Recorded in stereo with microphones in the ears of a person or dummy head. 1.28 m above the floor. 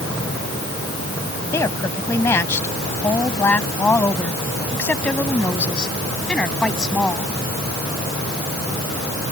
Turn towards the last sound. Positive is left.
turn(degrees=0)  # may be behind; listen again after turning